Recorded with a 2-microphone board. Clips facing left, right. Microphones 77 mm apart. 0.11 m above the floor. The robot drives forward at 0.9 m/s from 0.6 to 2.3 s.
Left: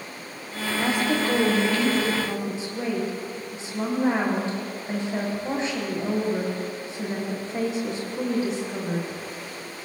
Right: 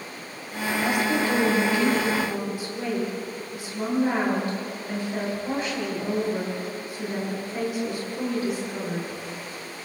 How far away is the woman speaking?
About 5.5 m.